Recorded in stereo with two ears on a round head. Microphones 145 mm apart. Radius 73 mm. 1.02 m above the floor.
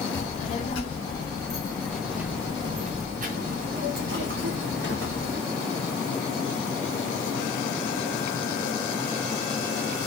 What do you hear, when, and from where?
0.1 s a child speaking: 45° left (ahead or behind), 1.3 m; by 5.4 s 85° right, 1.7 m